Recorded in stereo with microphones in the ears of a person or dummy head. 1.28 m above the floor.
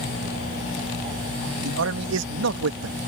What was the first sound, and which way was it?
A man speaking, 75° right (ahead or behind).